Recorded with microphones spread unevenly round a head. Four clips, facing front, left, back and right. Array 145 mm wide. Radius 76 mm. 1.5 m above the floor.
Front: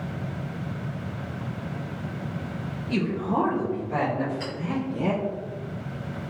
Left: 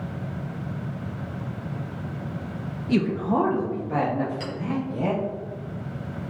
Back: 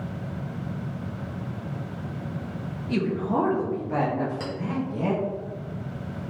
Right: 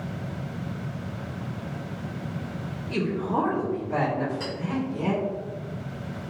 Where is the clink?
170° left, 1.5 m.